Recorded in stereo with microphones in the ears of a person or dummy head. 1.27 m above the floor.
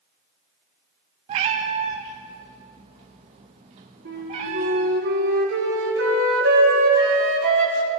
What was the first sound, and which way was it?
A cat meowing, 20° right (ahead or behind).